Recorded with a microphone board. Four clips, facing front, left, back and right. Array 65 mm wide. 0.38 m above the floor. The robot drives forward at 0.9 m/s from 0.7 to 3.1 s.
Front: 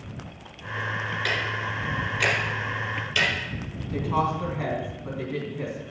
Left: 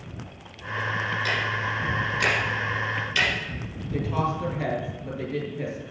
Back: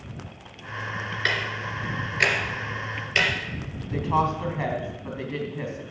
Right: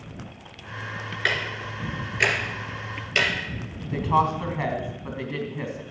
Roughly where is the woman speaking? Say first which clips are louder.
Right 5 dB, back 2 dB; behind right.